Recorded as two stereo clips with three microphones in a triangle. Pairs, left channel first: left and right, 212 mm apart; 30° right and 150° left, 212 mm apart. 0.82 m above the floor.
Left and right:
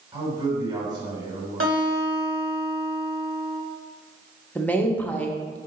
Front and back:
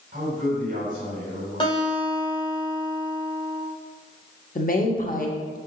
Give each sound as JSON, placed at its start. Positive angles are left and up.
{"t": 0.1, "sound": "a man speaking", "azimuth_deg": -160, "distance_m": 3.0}
{"t": 1.6, "sound": "a guitar", "azimuth_deg": -100, "distance_m": 1.8}
{"t": 4.5, "sound": "a woman speaking", "azimuth_deg": 10, "distance_m": 1.0}